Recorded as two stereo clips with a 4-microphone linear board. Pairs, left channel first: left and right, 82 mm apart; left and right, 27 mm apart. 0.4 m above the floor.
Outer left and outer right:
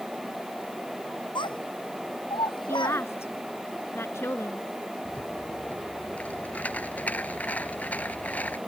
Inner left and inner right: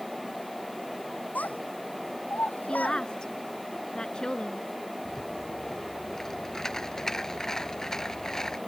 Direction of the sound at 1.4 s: 75° left (ahead or behind).